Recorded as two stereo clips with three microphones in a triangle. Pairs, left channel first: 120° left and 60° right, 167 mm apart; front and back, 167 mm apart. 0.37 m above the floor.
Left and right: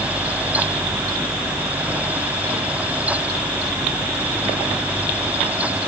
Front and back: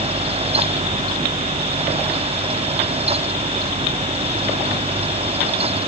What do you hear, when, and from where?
Only background noise.